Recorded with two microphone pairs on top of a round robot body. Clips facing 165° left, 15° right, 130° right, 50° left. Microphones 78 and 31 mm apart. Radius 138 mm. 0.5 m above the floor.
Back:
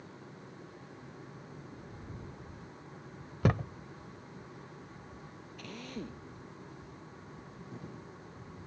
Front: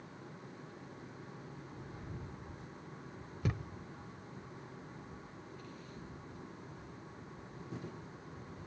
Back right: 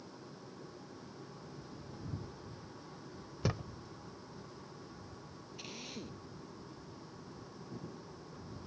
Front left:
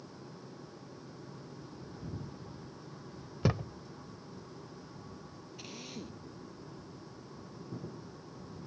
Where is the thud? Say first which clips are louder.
Back 10 dB, front left 5 dB; 130° left.